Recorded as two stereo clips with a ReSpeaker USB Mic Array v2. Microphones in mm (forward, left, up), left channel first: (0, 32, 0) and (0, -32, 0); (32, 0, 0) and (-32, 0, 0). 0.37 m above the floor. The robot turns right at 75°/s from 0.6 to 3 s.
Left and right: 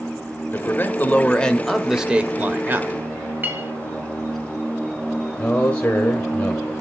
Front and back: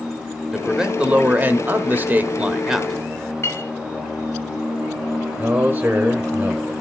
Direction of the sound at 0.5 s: 95° left.